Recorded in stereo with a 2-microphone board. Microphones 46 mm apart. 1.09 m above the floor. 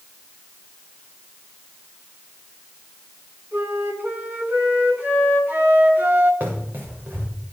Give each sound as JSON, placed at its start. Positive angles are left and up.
{"t": 3.5, "sound": "a flute", "side_deg": -50, "distance_m": 4.5}
{"t": 6.4, "sound": "running footsteps", "side_deg": -50, "distance_m": 7.0}